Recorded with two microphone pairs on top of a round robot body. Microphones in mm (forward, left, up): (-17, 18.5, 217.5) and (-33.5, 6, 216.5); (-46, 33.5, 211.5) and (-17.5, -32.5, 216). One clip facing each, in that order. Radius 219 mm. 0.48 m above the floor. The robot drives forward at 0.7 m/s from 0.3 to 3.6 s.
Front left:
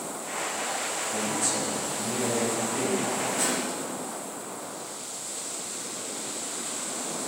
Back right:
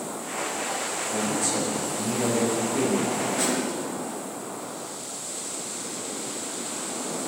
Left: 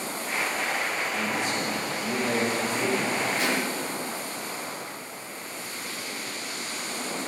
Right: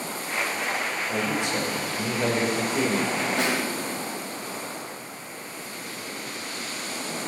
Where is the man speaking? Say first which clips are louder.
Back right 3 dB, right 2 dB; 55° right, 4 m; by 3.2 s 80° right, 3.5 m.